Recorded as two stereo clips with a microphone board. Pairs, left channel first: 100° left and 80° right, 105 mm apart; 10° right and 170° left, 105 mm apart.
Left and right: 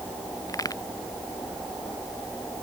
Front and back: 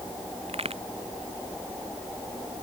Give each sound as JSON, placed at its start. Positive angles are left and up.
{"t": 0.5, "sound": "a crack", "azimuth_deg": 155}